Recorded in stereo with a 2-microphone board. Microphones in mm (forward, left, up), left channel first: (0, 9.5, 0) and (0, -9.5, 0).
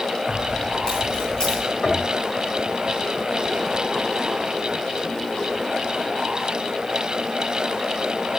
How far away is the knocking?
About 2.5 m.